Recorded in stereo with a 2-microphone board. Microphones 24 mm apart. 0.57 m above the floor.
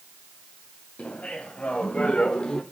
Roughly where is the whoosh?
No whoosh in this recording.